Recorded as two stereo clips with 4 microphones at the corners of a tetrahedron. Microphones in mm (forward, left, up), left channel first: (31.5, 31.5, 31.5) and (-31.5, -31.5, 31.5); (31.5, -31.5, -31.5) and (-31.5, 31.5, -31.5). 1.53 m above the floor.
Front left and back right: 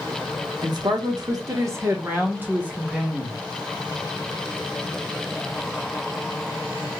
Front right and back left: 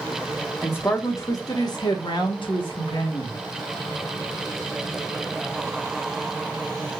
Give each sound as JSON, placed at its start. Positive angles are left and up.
{"t": 0.6, "sound": "a man speaking", "azimuth_deg": -110, "distance_m": 1.1}